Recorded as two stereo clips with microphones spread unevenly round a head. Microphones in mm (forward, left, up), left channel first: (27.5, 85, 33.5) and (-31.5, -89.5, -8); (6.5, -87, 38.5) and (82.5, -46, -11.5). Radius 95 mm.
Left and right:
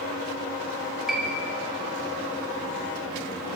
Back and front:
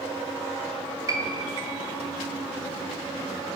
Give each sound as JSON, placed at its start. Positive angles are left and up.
{"t": 1.1, "sound": "a piano", "azimuth_deg": -20, "distance_m": 1.3}